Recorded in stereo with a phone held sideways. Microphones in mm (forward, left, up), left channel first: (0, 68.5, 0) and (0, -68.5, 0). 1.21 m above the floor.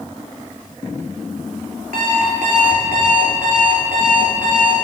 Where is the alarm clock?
80° right, 2.5 m.